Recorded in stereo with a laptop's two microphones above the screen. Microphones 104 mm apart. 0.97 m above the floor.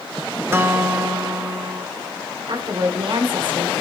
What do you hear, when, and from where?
0.5 s a guitar: 25° right (ahead or behind), 0.8 m
2.5 s a woman speaking: 60° right (ahead or behind), 2.5 m